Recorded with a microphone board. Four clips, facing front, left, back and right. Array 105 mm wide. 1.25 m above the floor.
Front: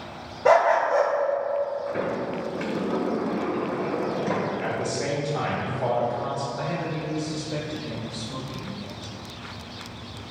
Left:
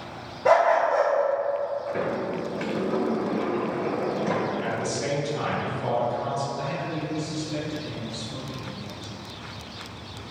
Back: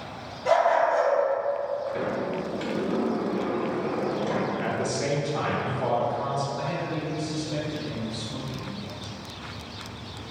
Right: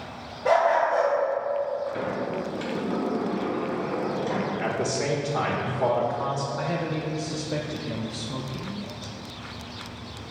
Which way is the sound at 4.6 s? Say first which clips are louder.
Right 1 dB, even; 95° right.